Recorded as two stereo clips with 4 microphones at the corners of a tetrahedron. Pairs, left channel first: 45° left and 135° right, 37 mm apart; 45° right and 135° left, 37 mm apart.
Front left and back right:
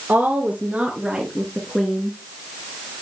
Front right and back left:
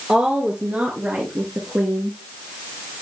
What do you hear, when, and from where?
0.1 s a woman speaking: 170° right, 1.9 m; by 2.2 s 105° left, 2 m